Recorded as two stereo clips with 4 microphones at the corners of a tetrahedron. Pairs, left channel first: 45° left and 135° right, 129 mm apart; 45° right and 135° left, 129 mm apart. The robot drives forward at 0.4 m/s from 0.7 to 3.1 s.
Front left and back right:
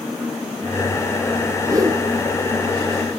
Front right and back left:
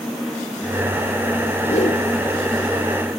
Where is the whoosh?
75° right, 2.5 m.